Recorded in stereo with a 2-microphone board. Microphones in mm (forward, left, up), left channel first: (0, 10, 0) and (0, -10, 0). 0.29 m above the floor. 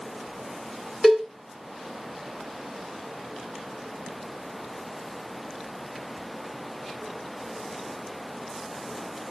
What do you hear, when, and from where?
1.0 s a cowbell: centre (ahead or behind), 1.4 m